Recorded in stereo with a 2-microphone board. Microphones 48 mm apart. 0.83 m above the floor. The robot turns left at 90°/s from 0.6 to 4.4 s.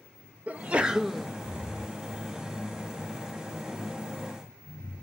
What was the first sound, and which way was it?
A sneeze, 125° right.